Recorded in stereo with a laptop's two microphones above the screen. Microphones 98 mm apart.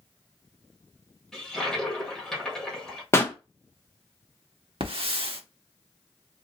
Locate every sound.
1.3 s a toilet flushing: 5° left (ahead or behind), 1.2 m
3.1 s a pop: 25° left (ahead or behind), 0.5 m
4.8 s a hiss: 65° right (ahead or behind), 1.0 m